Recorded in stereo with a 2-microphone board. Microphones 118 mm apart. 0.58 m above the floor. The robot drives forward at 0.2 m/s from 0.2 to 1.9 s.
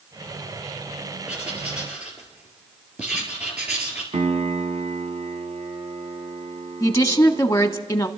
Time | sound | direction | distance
1.3 | writing | 10° right (ahead or behind) | 3 m
4.1 | a piano | 80° right | 1.1 m
6.8 | a woman speaking | 25° left (ahead or behind) | 1.0 m